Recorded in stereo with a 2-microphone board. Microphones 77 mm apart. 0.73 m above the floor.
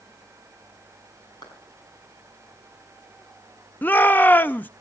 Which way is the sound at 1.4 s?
65° left (ahead or behind).